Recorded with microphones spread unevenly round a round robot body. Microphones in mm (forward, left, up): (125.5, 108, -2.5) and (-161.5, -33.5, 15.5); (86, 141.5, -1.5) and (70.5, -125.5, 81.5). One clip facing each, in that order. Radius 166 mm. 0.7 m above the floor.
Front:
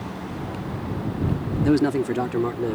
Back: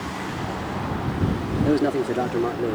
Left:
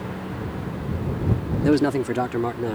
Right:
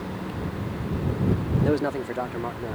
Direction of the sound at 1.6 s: 80° left.